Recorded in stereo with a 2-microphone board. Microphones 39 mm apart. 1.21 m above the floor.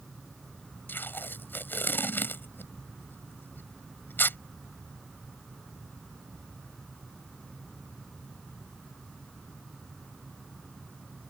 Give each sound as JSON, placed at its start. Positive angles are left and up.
{"t": 0.9, "sound": "tape being pulled", "side_deg": 60}